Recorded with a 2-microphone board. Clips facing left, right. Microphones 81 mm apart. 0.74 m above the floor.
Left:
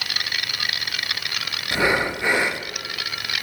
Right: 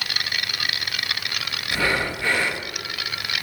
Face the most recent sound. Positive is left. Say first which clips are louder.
# left 3 dB
turn(degrees=20)  # may be behind; listen again after turning